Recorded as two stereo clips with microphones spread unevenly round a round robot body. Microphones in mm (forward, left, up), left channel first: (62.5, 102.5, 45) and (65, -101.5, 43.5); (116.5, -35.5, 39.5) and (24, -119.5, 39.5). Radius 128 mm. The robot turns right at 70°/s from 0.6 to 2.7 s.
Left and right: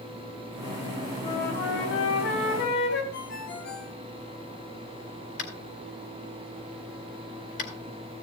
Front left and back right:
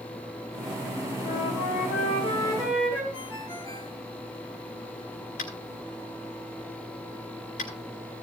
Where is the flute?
30° left, 4 m; by 3.0 s 130° left, 4 m.